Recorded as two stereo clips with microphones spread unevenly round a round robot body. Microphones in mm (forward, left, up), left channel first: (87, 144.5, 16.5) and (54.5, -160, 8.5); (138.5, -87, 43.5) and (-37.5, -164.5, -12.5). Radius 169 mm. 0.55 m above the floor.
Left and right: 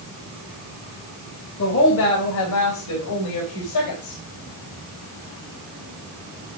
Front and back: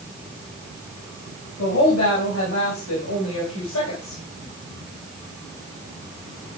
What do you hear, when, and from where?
1.6 s a woman speaking: 35° left, 3 m; by 4.2 s 65° left, 3 m